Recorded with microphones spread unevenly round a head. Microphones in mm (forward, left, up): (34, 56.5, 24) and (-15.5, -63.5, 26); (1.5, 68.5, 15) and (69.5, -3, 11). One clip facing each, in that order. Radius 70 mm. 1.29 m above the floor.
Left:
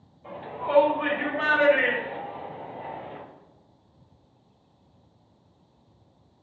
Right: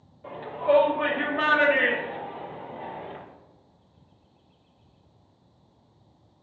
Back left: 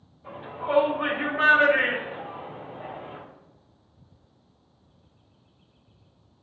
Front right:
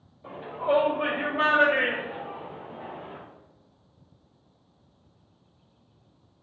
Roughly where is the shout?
Right.